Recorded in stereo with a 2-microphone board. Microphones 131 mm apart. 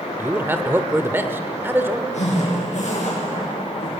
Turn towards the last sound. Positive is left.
turn(degrees=60)  # may be behind; listen again after turning